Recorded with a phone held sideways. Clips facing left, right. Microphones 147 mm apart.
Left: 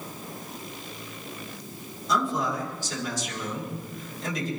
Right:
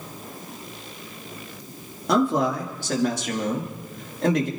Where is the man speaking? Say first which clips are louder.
Right 6 dB; 65° right (ahead or behind), 3 m.